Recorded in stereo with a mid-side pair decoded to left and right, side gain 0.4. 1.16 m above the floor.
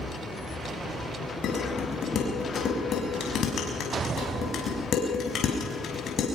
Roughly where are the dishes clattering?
Ahead left.